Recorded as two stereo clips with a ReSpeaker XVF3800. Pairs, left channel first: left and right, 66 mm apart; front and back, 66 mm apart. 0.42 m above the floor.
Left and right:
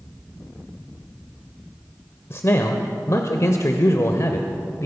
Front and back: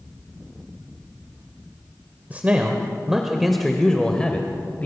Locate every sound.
2.3 s a man speaking: 120° left, 1.4 m; by 4.9 s 60° left, 1.6 m